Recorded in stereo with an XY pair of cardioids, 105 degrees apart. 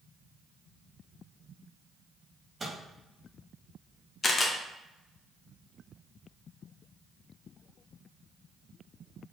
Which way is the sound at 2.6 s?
20° right.